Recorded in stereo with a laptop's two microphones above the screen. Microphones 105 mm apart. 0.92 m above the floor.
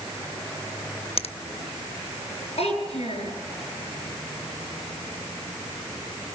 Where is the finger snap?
70° left (ahead or behind), 0.7 m.